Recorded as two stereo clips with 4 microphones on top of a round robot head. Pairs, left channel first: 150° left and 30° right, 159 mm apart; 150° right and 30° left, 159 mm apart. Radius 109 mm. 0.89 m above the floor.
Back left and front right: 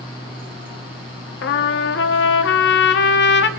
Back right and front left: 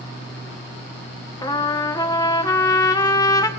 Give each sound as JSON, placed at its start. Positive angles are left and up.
{"t": 1.4, "sound": "a trumpet", "azimuth_deg": 140, "distance_m": 0.8}